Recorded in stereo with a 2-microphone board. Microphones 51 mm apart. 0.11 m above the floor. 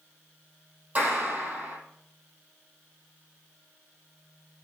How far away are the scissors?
No scissors in this recording.